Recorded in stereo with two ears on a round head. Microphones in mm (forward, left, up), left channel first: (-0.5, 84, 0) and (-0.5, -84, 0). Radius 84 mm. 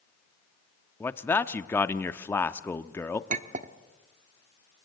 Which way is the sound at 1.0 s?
10° left (ahead or behind).